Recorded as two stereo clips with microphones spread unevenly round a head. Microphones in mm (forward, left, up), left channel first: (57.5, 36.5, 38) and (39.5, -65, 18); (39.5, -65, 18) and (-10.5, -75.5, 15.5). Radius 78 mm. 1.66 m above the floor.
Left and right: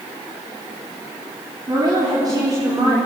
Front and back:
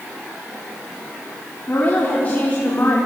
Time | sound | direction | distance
1.7 | a woman speaking | 45° right | 4.5 m